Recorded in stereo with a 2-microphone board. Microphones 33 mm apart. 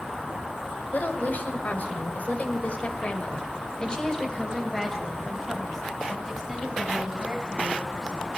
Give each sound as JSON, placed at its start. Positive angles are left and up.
{"t": 0.9, "sound": "a woman speaking", "side_deg": 60, "distance_m": 1.8}